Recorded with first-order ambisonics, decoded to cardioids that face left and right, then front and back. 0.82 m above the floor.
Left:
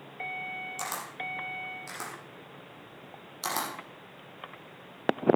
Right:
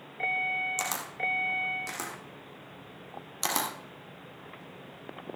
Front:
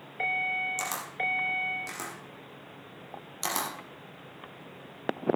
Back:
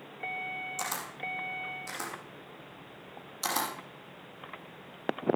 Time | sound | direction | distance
0.8 | a camera shutter | 70° right | 4.5 m